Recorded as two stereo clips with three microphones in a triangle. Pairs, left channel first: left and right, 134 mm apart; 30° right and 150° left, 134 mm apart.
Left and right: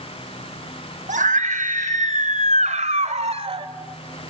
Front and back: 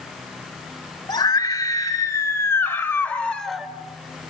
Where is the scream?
85° right, 4.5 m; by 3.7 s 125° right, 1.9 m.